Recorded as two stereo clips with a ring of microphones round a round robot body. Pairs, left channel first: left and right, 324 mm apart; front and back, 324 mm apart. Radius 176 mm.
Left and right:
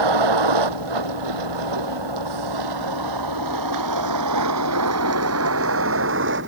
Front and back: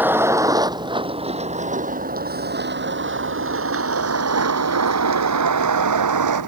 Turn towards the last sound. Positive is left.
turn(degrees=-150)